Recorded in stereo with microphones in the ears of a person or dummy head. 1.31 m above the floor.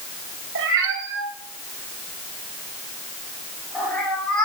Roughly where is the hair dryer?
I don't hear a hair dryer.